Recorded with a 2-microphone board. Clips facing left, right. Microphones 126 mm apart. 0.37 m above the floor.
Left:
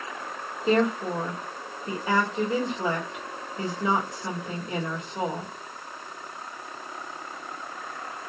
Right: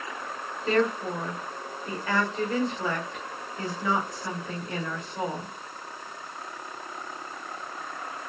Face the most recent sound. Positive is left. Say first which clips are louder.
# left 2 dB
turn(degrees=20)  # may be behind; listen again after turning